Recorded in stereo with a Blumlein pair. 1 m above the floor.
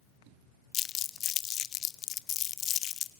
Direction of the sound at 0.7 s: 30° left.